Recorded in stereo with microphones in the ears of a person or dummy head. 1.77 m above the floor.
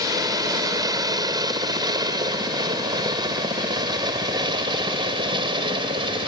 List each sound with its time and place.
0.0 s a helicopter: 20° right (ahead or behind); by 6.3 s 25° right (ahead or behind)